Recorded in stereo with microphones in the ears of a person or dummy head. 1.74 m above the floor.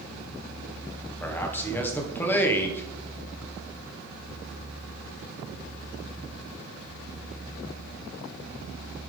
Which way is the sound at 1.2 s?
10° left (ahead or behind).